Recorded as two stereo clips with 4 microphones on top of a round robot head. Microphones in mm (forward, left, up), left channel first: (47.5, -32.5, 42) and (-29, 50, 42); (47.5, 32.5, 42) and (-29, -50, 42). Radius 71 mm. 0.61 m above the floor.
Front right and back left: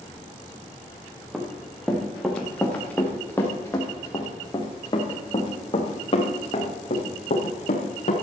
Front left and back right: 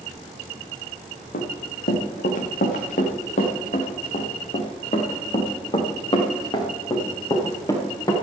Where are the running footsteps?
45° left, 3 m; by 8.1 s 15° right, 4 m.